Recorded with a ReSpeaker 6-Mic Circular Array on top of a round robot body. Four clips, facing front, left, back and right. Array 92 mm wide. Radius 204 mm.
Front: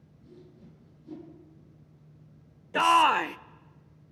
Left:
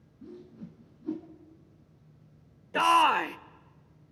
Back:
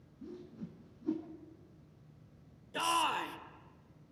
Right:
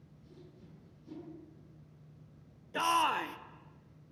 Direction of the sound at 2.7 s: 35° left.